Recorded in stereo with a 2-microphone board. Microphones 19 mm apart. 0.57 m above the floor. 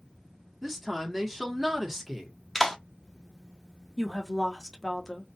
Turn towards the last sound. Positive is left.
turn(degrees=15)  # may be behind; listen again after turning